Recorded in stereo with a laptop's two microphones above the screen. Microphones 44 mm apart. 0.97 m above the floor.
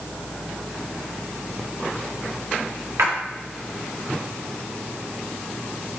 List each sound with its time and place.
3.0 s a splash: 70° right (ahead or behind), 1.3 m